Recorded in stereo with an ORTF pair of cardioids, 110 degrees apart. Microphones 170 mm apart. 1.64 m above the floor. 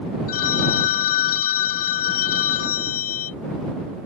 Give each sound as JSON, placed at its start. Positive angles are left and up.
{"t": 0.3, "sound": "a phone ringing", "azimuth_deg": 65}